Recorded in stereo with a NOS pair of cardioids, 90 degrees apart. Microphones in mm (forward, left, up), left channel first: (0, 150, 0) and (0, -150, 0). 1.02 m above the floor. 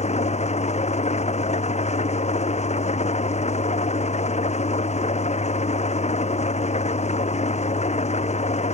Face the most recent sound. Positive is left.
turn(degrees=20)